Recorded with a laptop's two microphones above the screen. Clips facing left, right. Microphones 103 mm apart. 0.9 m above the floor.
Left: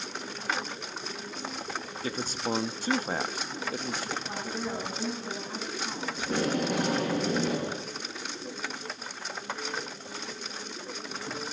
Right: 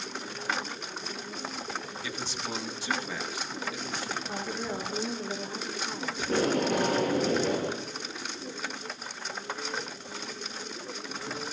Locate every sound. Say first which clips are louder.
2.0 s a man speaking: left 4 dB; 45° left (ahead or behind), 1.4 m
4.3 s a woman speaking: even; 25° left (ahead or behind), 7.5 m
6.2 s tape being pulled: right 2 dB; 10° left (ahead or behind), 7 m